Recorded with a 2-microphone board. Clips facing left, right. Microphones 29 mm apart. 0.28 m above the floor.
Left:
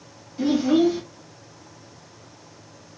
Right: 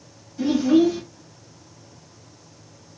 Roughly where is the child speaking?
Left.